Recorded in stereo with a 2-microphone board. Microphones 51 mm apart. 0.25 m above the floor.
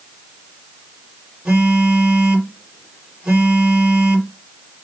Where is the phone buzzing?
20° right (ahead or behind), 3 m.